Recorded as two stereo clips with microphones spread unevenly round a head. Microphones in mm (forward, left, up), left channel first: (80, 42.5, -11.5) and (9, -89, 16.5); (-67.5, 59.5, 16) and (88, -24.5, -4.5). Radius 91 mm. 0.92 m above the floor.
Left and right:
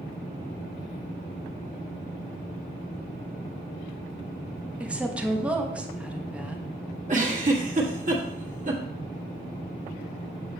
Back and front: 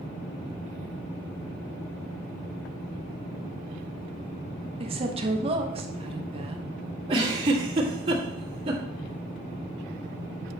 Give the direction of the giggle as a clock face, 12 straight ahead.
3 o'clock.